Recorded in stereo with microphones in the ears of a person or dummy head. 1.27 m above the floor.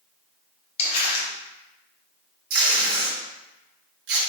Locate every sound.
0.8 s crumpling: 30° left (ahead or behind), 1.1 m
2.5 s tape being pulled: 65° right (ahead or behind), 1.0 m